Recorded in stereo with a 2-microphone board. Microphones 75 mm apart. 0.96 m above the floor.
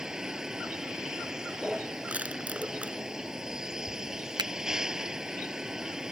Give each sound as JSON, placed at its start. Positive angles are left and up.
{"t": 0.0, "sound": "a vehicle", "side_deg": -5}
{"t": 2.1, "sound": "crushing", "side_deg": -20}
{"t": 4.4, "sound": "a finger snap", "side_deg": -70}